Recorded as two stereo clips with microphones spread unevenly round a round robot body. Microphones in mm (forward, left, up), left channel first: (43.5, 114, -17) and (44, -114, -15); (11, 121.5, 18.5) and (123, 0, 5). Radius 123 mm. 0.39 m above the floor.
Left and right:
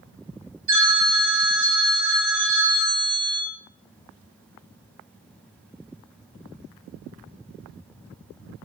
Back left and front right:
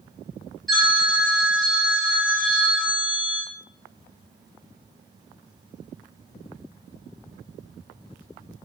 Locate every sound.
0.7 s a phone ringing: 135° right, 0.7 m